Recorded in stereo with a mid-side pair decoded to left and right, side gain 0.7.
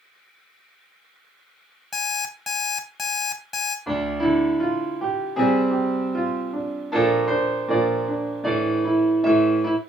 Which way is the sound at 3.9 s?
5° left.